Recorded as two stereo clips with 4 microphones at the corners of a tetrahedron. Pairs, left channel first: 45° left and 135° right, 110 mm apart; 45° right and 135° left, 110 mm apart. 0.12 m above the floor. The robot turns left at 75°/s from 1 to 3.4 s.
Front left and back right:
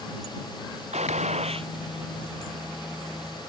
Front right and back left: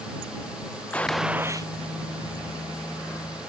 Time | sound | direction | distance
0.9 | a gunshot | 125° right | ?